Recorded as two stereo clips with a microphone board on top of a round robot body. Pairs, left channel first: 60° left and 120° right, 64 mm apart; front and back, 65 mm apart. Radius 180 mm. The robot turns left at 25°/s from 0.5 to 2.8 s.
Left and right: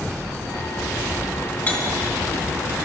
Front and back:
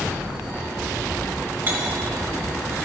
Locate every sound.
1.7 s cutlery clinking: 125° left, 3 m; by 1.8 s 120° left, 3 m